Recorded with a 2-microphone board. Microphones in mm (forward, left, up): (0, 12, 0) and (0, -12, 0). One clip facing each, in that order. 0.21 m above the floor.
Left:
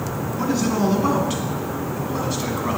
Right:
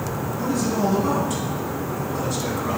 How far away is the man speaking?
About 2.5 m.